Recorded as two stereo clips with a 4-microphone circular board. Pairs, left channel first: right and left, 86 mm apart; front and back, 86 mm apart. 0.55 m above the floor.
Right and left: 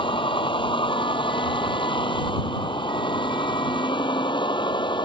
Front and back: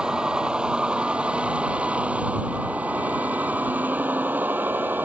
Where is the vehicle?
100° right; by 5.0 s 110° right.